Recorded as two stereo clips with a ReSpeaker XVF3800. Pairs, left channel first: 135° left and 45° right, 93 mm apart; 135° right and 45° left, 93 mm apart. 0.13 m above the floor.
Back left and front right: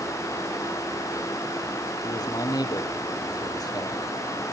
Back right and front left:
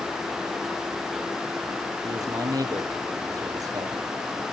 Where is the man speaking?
90° left, 3.5 m.